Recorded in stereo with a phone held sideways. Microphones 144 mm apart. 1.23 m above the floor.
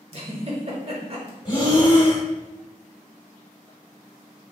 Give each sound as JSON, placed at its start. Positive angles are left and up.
{"t": 0.1, "sound": "a giggle", "side_deg": -45, "distance_m": 0.8}
{"t": 1.4, "sound": "breathing", "side_deg": 30, "distance_m": 0.9}